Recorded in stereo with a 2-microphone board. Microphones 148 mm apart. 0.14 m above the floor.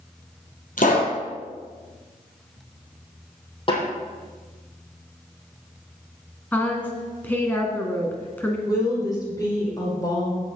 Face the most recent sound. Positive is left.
turn(degrees=25)  # may be behind; listen again after turning